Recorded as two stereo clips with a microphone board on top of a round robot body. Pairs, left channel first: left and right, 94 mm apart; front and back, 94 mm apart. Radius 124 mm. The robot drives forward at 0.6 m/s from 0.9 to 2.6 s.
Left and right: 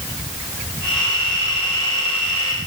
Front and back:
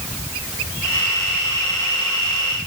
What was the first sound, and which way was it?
Only background noise.